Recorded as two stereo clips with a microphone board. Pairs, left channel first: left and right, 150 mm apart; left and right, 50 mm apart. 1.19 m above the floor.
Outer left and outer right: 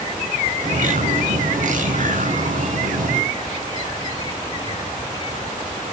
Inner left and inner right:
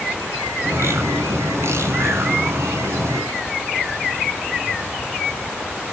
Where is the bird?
65° right (ahead or behind), 2.5 m.